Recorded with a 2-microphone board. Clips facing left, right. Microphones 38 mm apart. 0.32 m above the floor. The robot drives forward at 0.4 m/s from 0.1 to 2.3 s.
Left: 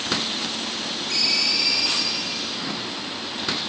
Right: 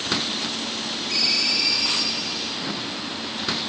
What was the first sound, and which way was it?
A ringtone, 5° right (ahead or behind).